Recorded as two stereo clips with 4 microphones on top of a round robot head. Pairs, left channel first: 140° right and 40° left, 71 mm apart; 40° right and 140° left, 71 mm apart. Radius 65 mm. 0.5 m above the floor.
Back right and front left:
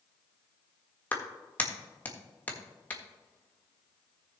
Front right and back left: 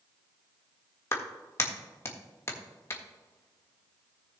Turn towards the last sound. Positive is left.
turn(degrees=-80)